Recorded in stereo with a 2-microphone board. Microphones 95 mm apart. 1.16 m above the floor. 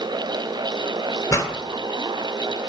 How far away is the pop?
About 2 m.